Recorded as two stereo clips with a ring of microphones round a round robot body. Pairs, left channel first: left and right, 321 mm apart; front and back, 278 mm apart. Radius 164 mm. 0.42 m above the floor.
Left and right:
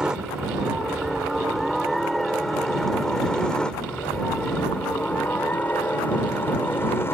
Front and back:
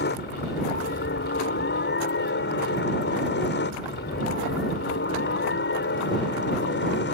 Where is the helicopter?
5° right; by 7.1 s 10° left.